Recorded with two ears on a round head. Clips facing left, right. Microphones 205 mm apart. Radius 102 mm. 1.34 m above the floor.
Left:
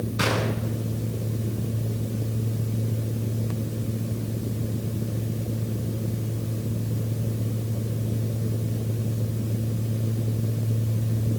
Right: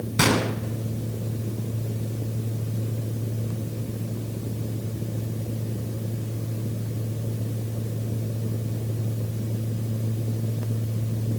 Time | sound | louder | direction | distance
0.2 | a gunshot | right 5 dB | 70° right (ahead or behind) | 3 m